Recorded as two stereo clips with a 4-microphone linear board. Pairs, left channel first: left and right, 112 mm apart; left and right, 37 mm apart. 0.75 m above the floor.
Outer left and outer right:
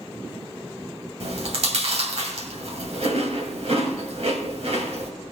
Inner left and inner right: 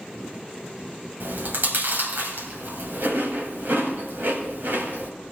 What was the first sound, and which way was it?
Chewing, 70° right (ahead or behind).